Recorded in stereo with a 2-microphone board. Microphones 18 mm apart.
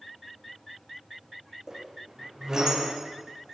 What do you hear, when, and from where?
1.7 s a squeak: 40° right (ahead or behind), 6 m